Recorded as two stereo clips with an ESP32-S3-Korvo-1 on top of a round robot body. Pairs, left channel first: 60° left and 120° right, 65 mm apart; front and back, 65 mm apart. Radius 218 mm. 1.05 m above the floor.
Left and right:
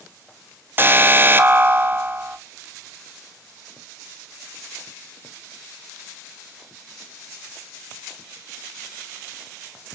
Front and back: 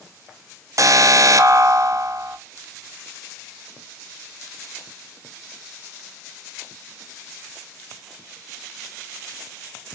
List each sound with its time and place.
0.8 s an alarm: 170° right, 1.0 m